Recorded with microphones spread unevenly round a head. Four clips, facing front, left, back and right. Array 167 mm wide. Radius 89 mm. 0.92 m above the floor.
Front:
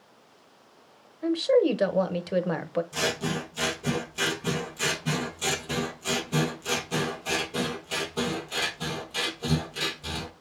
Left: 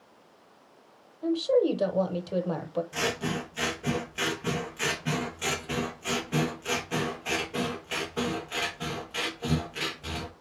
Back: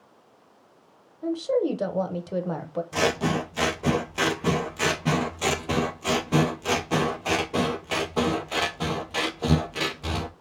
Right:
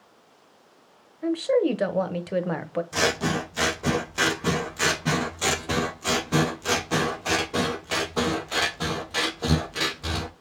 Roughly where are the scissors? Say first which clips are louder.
Right 6 dB, back 5 dB; behind right.